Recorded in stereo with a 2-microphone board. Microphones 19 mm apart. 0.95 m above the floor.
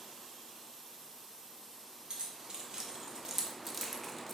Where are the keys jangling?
50° right (ahead or behind), 1.9 m; by 4.3 s 15° left (ahead or behind), 1.3 m.